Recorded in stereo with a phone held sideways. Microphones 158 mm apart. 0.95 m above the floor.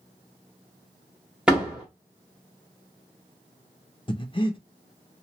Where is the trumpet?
I don't hear a trumpet.